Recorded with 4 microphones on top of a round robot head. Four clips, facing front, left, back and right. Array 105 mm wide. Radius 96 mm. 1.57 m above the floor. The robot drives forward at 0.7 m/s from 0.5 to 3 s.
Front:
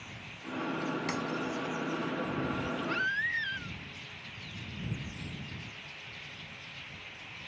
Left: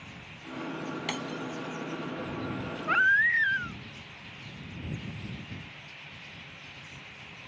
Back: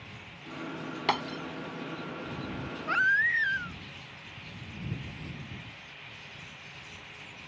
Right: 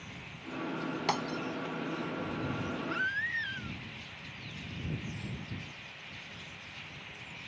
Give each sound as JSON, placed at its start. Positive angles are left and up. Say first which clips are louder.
{"t": 1.1, "sound": "breaking glass", "louder": "right 3 dB, back 4 dB", "azimuth_deg": -150}
{"t": 2.9, "sound": "a baby crying", "louder": "left 13 dB, back 10 dB", "azimuth_deg": 110}